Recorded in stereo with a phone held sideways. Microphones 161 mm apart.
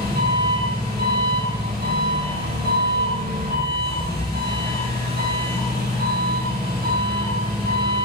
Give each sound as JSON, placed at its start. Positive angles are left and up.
{"t": 0.0, "sound": "an engine running", "side_deg": -80, "distance_m": 6.5}